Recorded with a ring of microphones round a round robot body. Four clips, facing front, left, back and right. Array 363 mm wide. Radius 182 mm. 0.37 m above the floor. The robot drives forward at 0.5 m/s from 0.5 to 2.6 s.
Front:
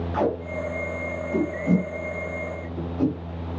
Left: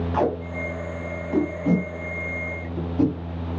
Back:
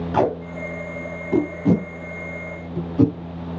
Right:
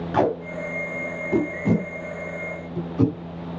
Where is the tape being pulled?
145° right, 2 m; by 3.1 s 160° right, 3 m.